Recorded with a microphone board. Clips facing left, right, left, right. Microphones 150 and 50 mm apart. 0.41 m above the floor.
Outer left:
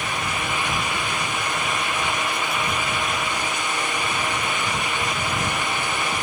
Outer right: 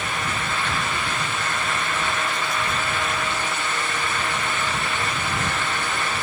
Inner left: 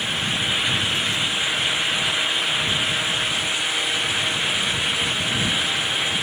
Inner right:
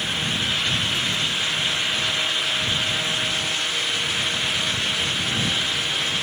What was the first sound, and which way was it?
Only background noise.